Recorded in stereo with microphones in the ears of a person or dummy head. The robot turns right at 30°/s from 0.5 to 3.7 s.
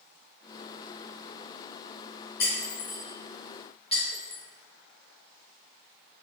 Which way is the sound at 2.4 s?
60° left (ahead or behind).